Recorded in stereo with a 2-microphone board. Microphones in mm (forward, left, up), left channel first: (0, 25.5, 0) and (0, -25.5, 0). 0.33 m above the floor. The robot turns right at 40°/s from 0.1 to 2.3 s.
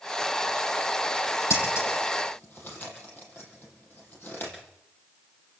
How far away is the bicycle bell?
I don't hear a bicycle bell.